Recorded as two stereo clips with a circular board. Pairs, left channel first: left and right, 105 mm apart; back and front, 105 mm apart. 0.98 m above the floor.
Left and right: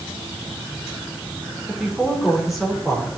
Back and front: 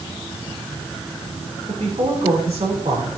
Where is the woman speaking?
Straight ahead, 3 m.